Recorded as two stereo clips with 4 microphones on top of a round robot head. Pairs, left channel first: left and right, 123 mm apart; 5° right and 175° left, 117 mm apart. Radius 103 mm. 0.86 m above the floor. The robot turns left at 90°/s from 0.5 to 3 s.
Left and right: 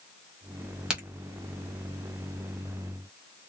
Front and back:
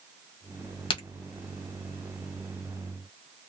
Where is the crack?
10° right, 1.3 m; by 1.0 s 20° right, 1.3 m.